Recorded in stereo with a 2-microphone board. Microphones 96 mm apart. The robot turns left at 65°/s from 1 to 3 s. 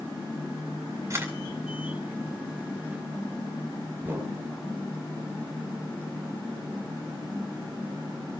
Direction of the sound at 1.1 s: 40° right (ahead or behind).